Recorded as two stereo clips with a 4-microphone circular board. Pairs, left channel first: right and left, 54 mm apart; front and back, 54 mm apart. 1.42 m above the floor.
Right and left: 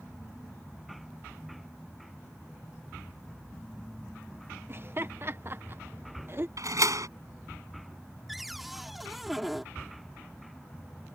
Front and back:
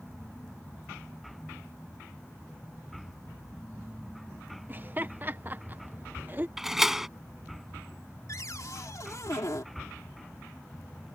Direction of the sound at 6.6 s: 100° left.